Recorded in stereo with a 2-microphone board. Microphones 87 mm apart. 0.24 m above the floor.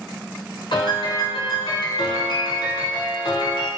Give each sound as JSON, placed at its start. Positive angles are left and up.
{"t": 0.7, "sound": "a piano", "side_deg": 70, "distance_m": 0.8}